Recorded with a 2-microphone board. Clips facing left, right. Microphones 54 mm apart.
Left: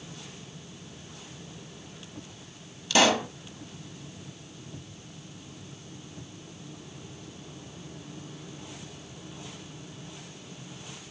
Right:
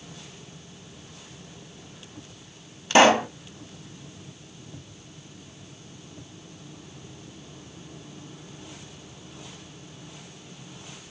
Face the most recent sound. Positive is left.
turn(degrees=-40)  # may be behind; listen again after turning